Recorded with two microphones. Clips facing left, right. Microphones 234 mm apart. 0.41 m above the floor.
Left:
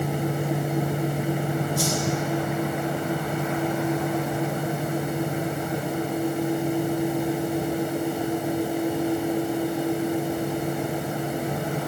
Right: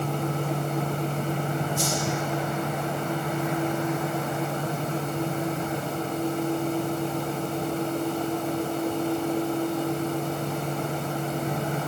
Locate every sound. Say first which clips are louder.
1.8 s a whoosh: left 3 dB; 85° left, 2.5 m